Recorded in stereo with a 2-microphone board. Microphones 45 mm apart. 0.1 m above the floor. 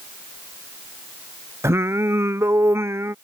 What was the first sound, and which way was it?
Singing, 75° right (ahead or behind).